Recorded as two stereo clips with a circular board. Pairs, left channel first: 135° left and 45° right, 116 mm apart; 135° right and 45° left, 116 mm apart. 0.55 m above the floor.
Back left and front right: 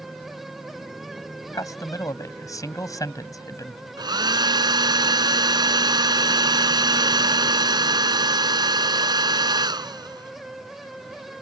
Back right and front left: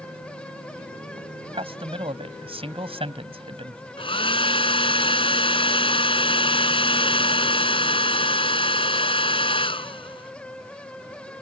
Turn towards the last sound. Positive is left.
turn(degrees=-95)